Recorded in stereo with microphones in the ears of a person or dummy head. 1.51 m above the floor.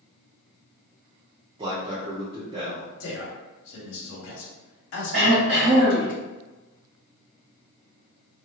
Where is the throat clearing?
85° right, 1.6 m.